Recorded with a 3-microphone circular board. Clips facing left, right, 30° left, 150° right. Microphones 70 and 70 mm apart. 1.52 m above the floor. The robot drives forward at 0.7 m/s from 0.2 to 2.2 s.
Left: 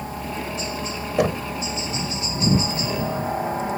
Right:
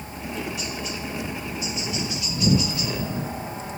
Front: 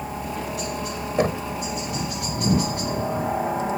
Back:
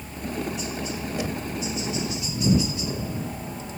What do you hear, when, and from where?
0.0 s a helicopter: 35° left; by 3.8 s 40° left
1.2 s knocking: 70° left